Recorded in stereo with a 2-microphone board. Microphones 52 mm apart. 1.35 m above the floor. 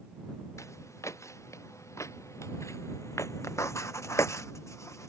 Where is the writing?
65° left (ahead or behind).